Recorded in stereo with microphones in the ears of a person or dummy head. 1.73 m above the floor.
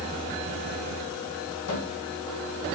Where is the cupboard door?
90° left, 2.5 m.